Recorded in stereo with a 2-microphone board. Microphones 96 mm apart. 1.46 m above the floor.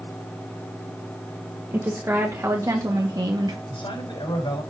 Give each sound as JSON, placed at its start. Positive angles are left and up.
{"t": 1.7, "sound": "a woman speaking", "side_deg": -25, "distance_m": 2.0}
{"t": 3.7, "sound": "a man speaking", "side_deg": 70, "distance_m": 5.5}